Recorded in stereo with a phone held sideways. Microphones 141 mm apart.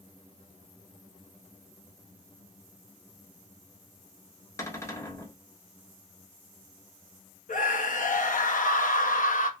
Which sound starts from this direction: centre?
A cupboard door, at 4.6 s.